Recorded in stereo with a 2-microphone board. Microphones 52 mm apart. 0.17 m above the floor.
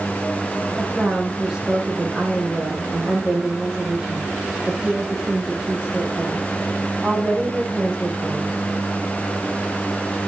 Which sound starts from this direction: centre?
A woman speaking, at 0.8 s.